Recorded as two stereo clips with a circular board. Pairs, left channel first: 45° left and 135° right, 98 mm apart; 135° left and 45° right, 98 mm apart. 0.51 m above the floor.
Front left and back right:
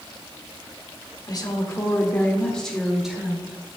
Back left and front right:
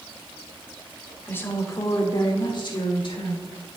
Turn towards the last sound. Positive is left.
turn(degrees=150)